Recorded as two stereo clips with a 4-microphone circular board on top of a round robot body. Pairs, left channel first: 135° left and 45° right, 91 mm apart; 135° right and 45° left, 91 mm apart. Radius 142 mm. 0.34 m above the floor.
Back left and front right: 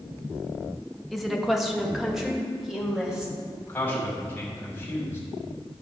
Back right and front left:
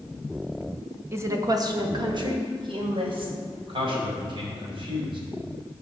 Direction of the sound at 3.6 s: 65° left.